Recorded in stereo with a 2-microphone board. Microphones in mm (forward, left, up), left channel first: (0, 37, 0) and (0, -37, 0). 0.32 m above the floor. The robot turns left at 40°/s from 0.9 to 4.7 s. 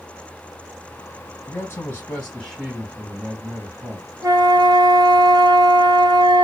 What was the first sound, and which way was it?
A man speaking, 50° left.